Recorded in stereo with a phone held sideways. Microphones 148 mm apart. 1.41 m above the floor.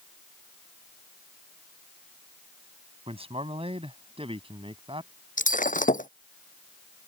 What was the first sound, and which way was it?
A man speaking, 40° right (ahead or behind).